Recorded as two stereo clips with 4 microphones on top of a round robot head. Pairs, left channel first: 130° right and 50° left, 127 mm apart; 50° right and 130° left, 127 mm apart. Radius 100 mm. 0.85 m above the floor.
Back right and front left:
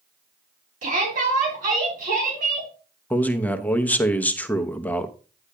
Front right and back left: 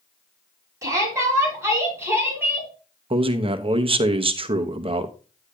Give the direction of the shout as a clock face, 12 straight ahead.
10 o'clock.